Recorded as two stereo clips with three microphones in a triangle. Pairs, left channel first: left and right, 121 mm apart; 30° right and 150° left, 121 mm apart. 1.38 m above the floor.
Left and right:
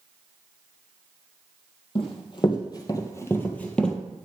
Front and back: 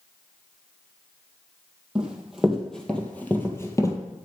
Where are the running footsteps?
70° left, 2.0 m; by 4.0 s 5° left, 1.6 m.